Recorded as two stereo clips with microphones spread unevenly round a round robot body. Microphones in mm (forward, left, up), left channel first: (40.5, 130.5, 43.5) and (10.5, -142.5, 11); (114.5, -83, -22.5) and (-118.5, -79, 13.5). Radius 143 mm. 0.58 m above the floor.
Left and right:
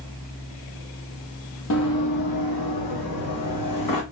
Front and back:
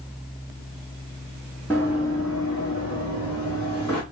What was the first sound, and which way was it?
Running footsteps, 85° left.